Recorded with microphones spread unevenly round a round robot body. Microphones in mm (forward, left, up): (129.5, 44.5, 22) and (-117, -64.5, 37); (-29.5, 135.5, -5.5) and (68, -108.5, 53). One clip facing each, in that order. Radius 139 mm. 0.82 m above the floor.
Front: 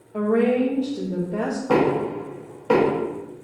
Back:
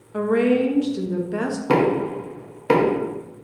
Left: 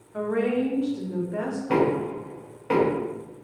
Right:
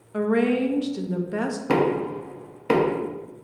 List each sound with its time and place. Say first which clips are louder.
0.1 s a woman speaking: back 1 dB, right 3 dB; 95° right, 0.5 m
1.7 s knocking: back 1 dB, even; 105° right, 0.7 m